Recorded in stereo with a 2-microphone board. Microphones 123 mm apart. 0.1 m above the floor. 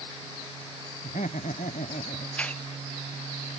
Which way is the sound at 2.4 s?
10° left (ahead or behind).